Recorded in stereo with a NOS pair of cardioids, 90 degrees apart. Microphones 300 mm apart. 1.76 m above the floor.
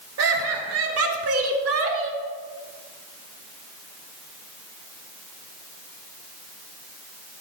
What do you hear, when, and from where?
0.2 s laughter: 55° right, 4 m; by 2.2 s 45° right, 2.5 m